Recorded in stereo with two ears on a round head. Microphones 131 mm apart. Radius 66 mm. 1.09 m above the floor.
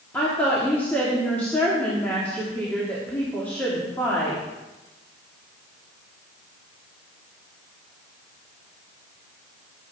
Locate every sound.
0.1 s a woman speaking: 10° left (ahead or behind), 2 m